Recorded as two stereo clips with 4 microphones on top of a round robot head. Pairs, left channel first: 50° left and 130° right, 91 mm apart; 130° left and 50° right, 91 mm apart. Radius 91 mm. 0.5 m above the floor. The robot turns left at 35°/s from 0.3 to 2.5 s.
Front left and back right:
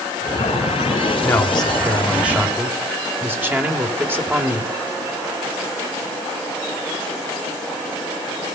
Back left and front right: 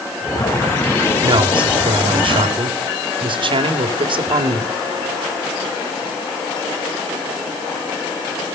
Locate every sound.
1.2 s a man speaking: 20° right, 2.5 m; by 4.7 s 65° right, 2.5 m